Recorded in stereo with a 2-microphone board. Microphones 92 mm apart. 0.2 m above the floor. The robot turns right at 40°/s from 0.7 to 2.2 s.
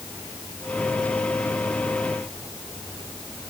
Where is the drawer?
I don't hear a drawer.